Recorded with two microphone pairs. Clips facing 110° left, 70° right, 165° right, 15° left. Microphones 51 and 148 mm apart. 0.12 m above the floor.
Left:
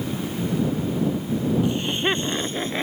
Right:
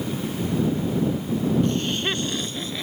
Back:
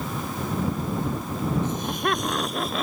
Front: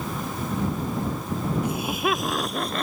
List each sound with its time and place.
1.6 s laughter: 65° left; by 2.8 s 110° left